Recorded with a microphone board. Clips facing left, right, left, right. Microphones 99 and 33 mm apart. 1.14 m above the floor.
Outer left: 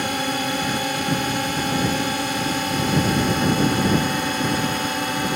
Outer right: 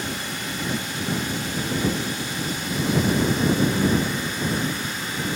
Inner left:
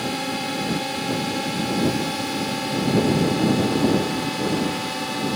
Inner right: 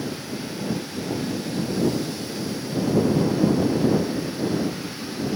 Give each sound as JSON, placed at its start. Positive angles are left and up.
{"t": 0.0, "sound": "a drone", "side_deg": 65}